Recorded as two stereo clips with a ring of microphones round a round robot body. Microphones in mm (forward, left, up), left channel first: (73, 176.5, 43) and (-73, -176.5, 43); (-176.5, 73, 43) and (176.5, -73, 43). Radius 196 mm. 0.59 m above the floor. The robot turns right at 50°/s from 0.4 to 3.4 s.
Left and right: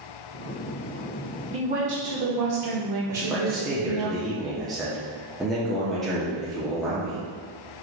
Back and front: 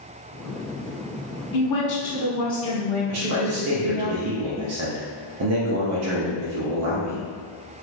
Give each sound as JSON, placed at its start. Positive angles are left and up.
{"t": 1.5, "sound": "a woman speaking", "azimuth_deg": 175, "distance_m": 1.4}
{"t": 3.1, "sound": "a man speaking", "azimuth_deg": -40, "distance_m": 0.7}